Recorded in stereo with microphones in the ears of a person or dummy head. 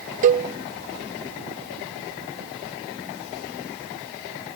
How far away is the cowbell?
About 0.7 m.